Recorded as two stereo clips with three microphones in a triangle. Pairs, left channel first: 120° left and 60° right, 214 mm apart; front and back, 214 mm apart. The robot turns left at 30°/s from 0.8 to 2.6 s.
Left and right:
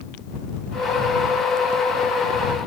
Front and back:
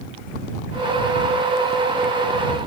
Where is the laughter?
I don't hear laughter.